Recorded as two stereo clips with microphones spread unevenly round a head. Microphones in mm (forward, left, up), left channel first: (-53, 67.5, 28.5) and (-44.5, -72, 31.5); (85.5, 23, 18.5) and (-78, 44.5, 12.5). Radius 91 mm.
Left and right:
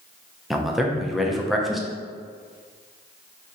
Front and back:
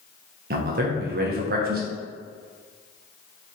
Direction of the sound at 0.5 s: 175° right.